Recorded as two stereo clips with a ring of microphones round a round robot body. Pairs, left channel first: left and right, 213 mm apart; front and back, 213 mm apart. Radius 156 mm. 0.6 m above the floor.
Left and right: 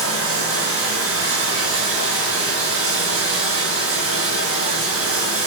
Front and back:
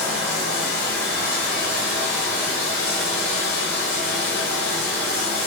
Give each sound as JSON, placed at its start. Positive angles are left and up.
{"t": 0.0, "sound": "running water", "azimuth_deg": -85, "distance_m": 6.0}